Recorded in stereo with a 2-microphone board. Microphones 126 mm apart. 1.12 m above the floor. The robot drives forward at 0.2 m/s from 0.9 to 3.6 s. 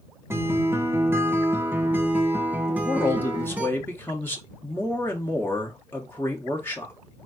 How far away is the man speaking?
About 1.2 m.